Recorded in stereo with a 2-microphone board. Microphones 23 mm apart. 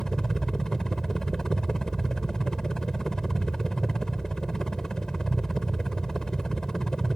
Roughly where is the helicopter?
Left.